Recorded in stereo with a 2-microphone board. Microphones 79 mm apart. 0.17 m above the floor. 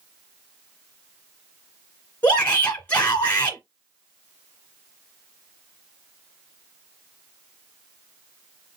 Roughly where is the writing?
No writing in this recording.